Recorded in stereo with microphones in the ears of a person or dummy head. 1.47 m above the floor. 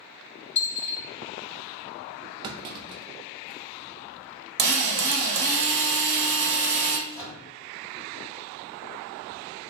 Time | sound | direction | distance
0.6 | a dropped coin | 45° left (ahead or behind) | 1.9 m
2.4 | a clunk | 30° right (ahead or behind) | 0.5 m
4.6 | a drill | 60° right (ahead or behind) | 1.3 m
7.1 | a microwave | 10° left (ahead or behind) | 1.8 m